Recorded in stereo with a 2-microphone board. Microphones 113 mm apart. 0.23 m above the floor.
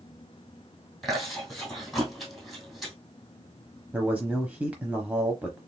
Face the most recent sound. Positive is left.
turn(degrees=-15)  # may be behind; listen again after turning